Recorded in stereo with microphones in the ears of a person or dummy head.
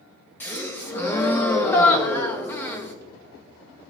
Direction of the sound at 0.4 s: 10° left (ahead or behind).